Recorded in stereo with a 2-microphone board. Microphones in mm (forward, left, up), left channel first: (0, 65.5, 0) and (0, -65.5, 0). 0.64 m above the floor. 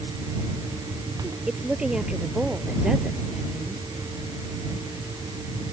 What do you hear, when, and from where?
1.5 s a woman speaking: 5° right (ahead or behind)